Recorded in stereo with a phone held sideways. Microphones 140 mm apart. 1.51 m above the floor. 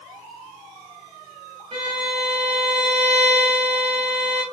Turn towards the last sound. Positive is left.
turn(degrees=-55)  # may be behind; listen again after turning